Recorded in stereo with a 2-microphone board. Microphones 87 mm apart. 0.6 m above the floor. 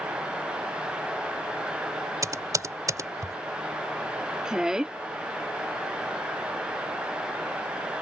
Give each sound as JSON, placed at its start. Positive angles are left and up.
{"t": 2.2, "sound": "typing on a keyboard", "side_deg": -40}
{"t": 4.5, "sound": "a woman speaking", "side_deg": -10}